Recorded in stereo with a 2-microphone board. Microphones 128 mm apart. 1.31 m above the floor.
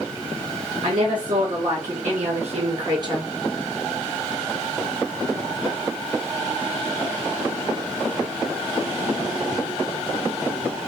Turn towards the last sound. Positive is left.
turn(degrees=-25)  # may be behind; listen again after turning